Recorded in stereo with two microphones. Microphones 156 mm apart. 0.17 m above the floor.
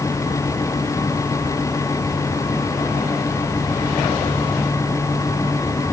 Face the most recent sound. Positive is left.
No sound to turn to.